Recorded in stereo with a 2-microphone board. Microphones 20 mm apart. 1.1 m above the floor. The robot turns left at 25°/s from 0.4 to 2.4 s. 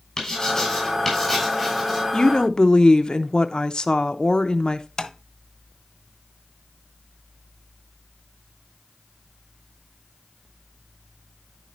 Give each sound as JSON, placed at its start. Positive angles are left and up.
{"t": 0.2, "sound": "writing", "side_deg": 30, "distance_m": 6.0}
{"t": 2.1, "sound": "a woman speaking", "side_deg": 35, "distance_m": 0.8}
{"t": 5.0, "sound": "tapping", "side_deg": 35, "distance_m": 1.0}